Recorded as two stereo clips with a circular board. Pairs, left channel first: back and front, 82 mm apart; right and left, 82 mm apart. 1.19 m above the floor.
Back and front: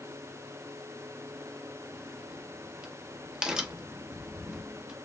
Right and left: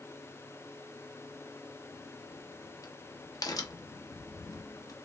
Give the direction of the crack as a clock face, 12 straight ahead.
3 o'clock.